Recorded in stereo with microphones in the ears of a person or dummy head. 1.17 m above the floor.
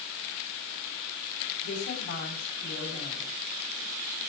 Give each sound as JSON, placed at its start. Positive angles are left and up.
{"t": 1.6, "sound": "a woman speaking", "side_deg": 70, "distance_m": 8.5}